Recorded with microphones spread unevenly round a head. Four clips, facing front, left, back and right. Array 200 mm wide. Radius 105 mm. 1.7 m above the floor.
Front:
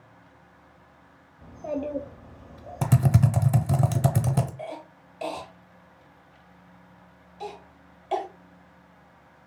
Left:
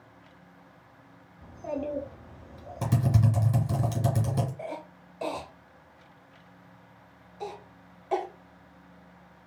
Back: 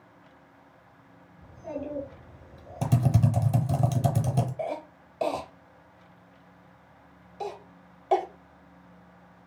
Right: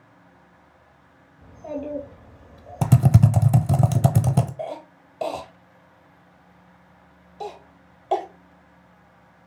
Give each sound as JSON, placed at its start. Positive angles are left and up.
{"t": 1.4, "sound": "a child speaking", "azimuth_deg": 20, "distance_m": 2.0}
{"t": 2.8, "sound": "typing on a keyboard", "azimuth_deg": -85, "distance_m": 0.6}
{"t": 4.6, "sound": "a cough", "azimuth_deg": -135, "distance_m": 0.9}